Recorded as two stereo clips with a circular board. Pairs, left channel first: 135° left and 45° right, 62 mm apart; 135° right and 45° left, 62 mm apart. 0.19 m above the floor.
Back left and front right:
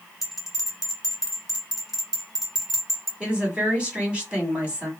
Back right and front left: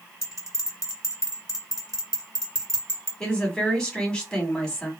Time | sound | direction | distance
0.2 | a bell | 40° left | 2 m
3.2 | a woman speaking | 80° right | 1.5 m